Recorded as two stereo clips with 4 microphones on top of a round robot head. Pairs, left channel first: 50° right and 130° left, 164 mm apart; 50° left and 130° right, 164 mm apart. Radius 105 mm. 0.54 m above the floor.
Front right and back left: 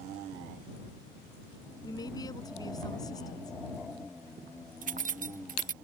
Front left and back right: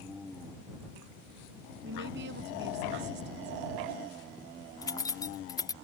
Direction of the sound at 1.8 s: 120° right.